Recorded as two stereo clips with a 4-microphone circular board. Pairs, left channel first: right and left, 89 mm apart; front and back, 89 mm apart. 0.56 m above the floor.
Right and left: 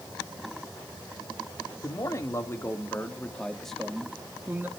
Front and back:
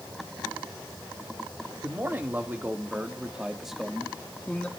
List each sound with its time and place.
1.8 s a man speaking: 125° right, 1.8 m; by 4.7 s 60° left, 1.3 m